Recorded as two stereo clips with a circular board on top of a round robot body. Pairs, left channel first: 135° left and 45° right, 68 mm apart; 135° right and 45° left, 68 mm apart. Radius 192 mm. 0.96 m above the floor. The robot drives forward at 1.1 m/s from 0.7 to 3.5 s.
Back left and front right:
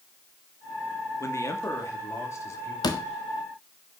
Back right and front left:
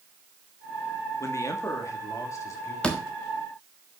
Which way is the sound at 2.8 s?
150° left.